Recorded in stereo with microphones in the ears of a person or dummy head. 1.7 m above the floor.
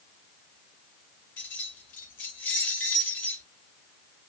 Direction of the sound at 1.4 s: 15° left (ahead or behind).